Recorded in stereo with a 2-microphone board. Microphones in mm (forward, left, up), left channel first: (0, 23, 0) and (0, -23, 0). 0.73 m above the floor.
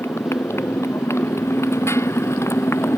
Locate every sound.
0.0 s a motorcycle: 75° left (ahead or behind); by 3.0 s 85° left